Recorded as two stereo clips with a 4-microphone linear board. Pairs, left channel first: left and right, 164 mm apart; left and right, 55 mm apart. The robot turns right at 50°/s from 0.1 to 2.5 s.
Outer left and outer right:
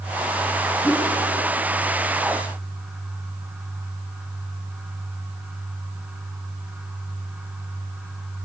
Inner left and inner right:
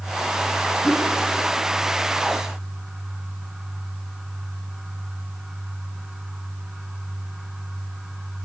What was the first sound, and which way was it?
A whoosh, 10° right (ahead or behind).